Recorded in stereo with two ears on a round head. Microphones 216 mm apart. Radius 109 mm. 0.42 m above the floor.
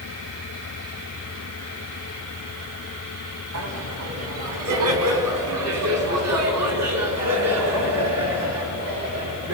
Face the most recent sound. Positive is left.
turn(degrees=-80)